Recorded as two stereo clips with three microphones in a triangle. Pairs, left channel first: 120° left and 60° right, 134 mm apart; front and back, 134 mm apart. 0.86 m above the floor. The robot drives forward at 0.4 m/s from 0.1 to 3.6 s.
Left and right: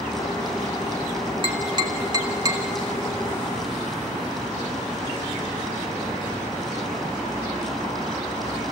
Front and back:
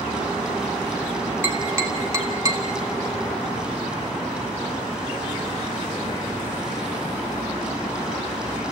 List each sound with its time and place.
1.4 s tapping: 105° right, 1.7 m; by 2.6 s 120° right, 1.9 m